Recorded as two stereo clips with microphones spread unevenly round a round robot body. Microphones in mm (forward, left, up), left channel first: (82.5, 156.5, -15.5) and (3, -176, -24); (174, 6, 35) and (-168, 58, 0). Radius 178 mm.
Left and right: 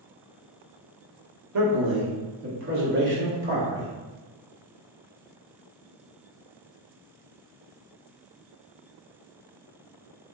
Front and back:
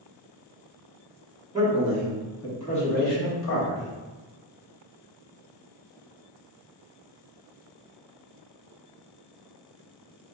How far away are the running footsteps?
I don't hear running footsteps.